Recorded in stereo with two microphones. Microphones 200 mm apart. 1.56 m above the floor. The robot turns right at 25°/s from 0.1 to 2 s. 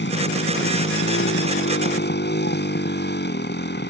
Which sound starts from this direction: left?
A motorcycle, at 0.0 s.